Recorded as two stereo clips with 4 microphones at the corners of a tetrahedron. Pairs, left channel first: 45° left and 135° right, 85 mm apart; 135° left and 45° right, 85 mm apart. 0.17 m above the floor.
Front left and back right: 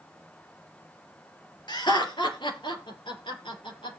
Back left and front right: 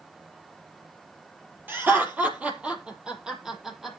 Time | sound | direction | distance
1.7 | laughter | 20° left | 4 m